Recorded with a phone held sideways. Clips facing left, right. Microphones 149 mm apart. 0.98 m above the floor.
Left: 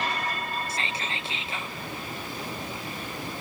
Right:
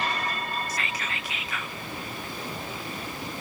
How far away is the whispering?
About 0.7 m.